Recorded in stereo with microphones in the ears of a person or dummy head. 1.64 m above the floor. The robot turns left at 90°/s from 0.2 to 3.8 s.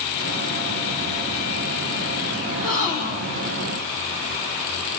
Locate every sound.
2.5 s a gasp: 165° right, 2.5 m; by 3.6 s 95° left, 2.5 m